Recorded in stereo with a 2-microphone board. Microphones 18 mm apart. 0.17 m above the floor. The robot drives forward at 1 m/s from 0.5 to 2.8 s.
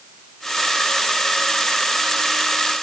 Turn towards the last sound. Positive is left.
No sound to turn to.